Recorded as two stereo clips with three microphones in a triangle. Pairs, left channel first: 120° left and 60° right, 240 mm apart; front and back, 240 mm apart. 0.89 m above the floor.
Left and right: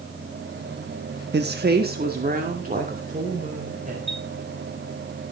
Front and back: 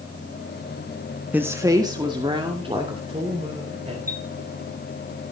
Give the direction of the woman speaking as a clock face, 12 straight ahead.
3 o'clock.